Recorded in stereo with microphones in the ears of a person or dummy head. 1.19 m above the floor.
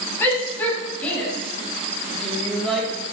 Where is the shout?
10° left (ahead or behind), 6.5 m; by 2.9 s 5° right (ahead or behind), 5 m.